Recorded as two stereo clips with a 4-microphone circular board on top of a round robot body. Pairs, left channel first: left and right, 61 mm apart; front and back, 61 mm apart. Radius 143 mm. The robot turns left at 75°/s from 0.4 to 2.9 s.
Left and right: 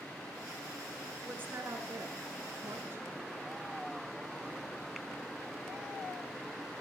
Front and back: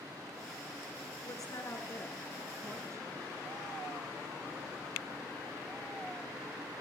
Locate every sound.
1.2 s a woman speaking: 15° right, 6 m; by 3.0 s 140° right, 6 m